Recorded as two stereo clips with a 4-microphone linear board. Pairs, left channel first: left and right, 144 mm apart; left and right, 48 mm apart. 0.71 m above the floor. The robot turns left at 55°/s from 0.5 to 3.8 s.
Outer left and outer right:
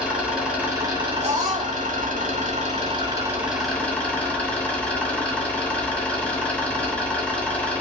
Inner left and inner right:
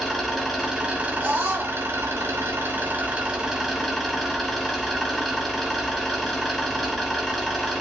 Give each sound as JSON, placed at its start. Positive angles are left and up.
{"t": 0.0, "sound": "an engine running", "azimuth_deg": -5, "distance_m": 2.5}
{"t": 1.2, "sound": "a scream", "side_deg": -50, "distance_m": 1.9}